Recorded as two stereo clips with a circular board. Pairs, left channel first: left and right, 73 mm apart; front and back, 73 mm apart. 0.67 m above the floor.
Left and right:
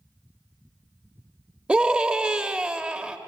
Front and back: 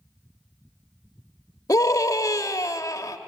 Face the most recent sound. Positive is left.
turn(degrees=-20)